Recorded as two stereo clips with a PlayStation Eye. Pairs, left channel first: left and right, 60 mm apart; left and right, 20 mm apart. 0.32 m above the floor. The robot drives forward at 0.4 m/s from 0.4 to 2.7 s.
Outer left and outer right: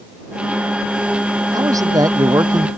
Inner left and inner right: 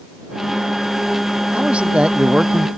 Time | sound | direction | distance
1.5 | a man speaking | 75° right (ahead or behind) | ?